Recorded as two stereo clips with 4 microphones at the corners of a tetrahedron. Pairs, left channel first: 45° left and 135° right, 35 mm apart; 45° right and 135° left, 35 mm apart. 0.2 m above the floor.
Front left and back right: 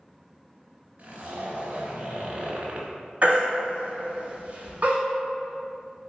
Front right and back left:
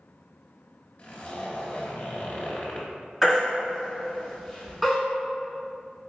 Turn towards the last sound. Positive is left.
turn(degrees=-145)